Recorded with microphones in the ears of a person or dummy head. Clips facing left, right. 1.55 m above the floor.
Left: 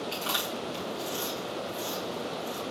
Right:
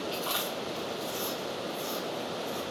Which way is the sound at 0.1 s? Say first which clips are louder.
Even; 40° left (ahead or behind).